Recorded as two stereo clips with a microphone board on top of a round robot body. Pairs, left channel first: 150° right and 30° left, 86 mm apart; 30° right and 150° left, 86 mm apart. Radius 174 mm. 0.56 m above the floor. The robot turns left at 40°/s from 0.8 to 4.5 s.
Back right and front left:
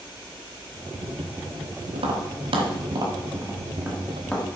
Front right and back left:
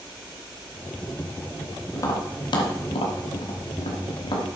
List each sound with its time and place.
1.9 s tapping: 25° left, 1.1 m; by 4.5 s 75° right, 1.1 m